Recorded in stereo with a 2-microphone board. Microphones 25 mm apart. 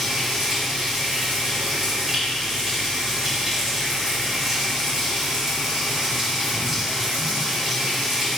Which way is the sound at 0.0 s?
20° right (ahead or behind).